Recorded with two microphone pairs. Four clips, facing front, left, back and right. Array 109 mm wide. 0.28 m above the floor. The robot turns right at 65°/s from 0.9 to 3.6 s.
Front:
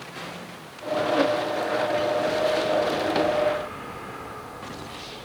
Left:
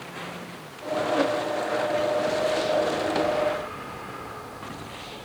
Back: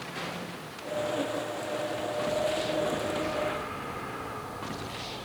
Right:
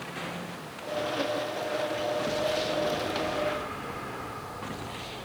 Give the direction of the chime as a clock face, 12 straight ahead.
I don't hear a chime.